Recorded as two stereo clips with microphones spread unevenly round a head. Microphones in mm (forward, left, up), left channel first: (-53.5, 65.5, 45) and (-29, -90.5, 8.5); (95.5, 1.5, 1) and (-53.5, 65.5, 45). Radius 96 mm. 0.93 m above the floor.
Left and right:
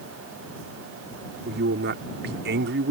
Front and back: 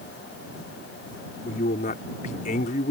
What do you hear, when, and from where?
1.4 s a man speaking: 70° right